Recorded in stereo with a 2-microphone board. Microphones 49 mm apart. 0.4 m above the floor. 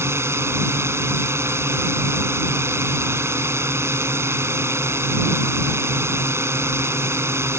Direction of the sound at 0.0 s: 65° right (ahead or behind).